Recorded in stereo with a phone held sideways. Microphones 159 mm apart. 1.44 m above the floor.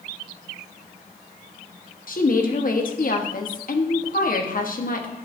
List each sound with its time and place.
2.1 s a woman speaking: 60° left (ahead or behind), 1.0 m